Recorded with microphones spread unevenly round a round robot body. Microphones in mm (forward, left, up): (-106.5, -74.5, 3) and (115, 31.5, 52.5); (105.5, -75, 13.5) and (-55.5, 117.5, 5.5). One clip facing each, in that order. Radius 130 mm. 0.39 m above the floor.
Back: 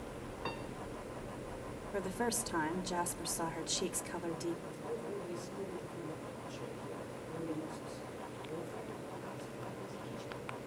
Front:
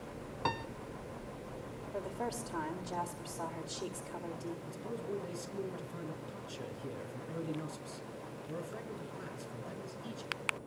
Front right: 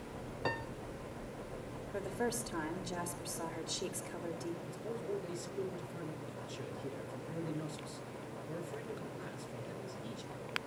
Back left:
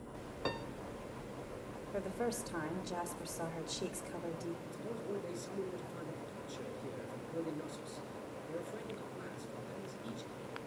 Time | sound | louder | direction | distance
0.5 | a piano | front 5 dB, even | 50° left | 1.2 m
1.9 | a woman speaking | back 3 dB, front right 1 dB | 145° right | 1.8 m
4.7 | a man speaking | front 1 dB, front right 2 dB | 45° left | 5 m